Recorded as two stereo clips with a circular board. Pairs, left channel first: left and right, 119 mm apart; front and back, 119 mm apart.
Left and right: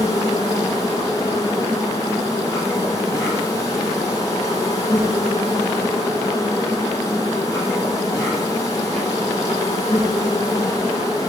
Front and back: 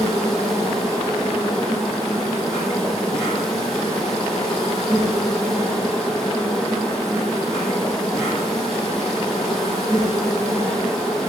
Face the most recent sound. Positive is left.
turn(degrees=35)